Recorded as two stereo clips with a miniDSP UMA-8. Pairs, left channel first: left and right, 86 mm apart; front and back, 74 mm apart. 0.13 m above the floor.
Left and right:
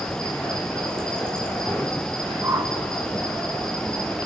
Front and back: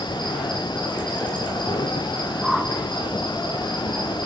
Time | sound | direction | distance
0.0 | an insect | 5° left | 1.6 m
2.4 | a whoosh | 95° right | 1.2 m